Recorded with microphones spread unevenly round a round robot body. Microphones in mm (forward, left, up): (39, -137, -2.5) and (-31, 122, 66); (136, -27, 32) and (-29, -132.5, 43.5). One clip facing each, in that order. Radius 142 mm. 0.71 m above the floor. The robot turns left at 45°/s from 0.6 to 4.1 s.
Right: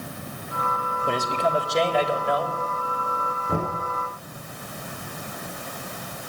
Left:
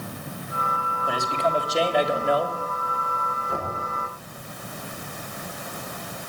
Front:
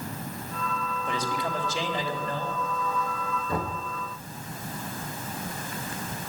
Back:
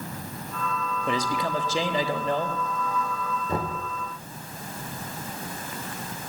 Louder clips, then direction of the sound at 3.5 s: Right 5 dB, back 2 dB; 80° right.